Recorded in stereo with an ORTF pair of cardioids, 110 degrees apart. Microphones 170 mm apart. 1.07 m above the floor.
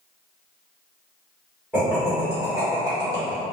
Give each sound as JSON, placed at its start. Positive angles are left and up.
{"t": 1.7, "sound": "laughter", "azimuth_deg": 5, "distance_m": 1.9}